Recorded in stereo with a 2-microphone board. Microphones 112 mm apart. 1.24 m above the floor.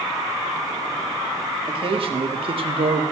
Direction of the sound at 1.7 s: 50° right (ahead or behind).